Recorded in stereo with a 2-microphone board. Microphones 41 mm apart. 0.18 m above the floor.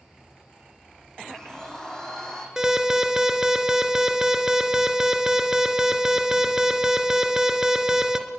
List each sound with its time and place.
1.2 s a blender: 15° left (ahead or behind), 5.5 m
2.6 s an alarm: 15° right (ahead or behind), 2.5 m